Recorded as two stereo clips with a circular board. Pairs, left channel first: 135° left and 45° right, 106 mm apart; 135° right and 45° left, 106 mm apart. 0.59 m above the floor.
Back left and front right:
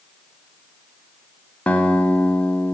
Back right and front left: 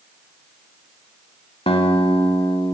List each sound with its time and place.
1.7 s a guitar: 150° right, 0.8 m